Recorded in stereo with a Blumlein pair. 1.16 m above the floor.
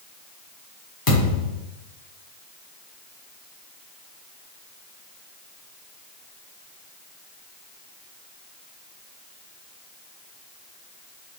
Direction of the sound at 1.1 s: 30° left.